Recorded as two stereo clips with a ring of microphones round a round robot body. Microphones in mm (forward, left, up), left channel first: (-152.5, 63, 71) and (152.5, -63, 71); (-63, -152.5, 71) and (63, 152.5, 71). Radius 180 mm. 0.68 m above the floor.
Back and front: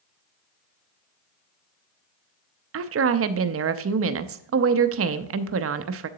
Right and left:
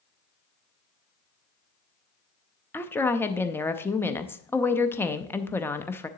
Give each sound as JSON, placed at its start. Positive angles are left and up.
{"t": 2.7, "sound": "a woman speaking", "azimuth_deg": -35, "distance_m": 0.6}